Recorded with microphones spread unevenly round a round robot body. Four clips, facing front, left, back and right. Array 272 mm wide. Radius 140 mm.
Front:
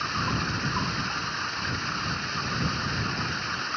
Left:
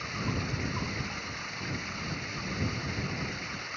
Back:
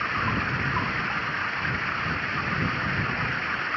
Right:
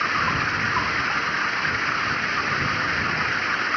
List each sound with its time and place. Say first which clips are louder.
0.0 s running water: right 12 dB, back 2 dB; 90° right